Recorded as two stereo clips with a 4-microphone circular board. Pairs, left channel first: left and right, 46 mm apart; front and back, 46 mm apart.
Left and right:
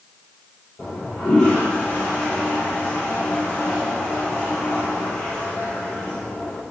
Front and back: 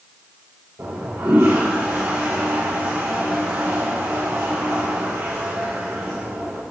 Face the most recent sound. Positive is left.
turn(degrees=165)